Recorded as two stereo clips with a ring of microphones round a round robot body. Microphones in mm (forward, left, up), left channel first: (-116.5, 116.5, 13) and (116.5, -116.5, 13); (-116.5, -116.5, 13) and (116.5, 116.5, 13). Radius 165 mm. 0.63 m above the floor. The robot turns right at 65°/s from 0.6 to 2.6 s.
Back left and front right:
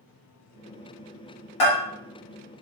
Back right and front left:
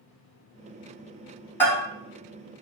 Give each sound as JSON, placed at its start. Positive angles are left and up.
{"t": 1.6, "sound": "a bell", "azimuth_deg": 140, "distance_m": 2.0}